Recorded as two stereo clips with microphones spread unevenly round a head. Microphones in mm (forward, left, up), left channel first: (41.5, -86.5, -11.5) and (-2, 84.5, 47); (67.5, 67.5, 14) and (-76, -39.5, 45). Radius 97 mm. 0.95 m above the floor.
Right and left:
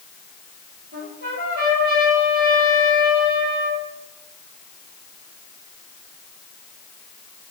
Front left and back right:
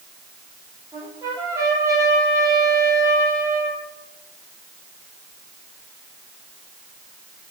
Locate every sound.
0.9 s a trumpet: 145° left, 6.5 m